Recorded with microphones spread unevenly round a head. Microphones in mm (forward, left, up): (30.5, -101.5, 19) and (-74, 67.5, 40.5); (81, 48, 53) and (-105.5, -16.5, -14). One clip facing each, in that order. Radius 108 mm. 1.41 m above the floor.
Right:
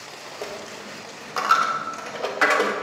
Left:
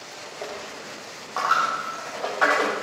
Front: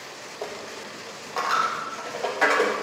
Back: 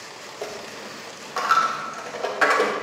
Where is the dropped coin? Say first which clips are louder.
Right 1 dB, back 1 dB; 35° right, 0.7 m.